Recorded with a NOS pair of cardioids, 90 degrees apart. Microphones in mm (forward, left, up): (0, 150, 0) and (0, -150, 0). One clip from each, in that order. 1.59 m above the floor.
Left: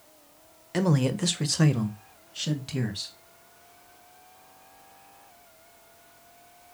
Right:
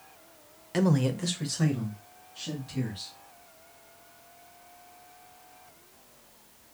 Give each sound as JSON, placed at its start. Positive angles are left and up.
{"t": 0.7, "sound": "a man speaking", "azimuth_deg": 5, "distance_m": 0.6}